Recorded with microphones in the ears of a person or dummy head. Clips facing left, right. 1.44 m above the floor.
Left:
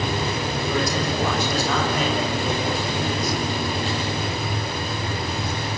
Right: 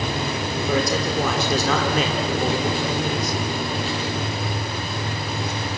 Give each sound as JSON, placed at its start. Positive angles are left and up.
{"t": 0.7, "sound": "a man speaking", "side_deg": -70, "distance_m": 4.0}